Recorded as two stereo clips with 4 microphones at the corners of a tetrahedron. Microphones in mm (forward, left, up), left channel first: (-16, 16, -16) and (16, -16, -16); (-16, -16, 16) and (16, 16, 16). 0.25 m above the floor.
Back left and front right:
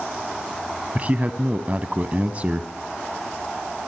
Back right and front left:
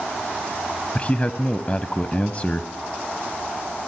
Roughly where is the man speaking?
Right.